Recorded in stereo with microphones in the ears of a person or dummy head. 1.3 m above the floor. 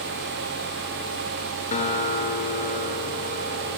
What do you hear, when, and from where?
1.7 s a guitar: 35° left (ahead or behind), 2.5 m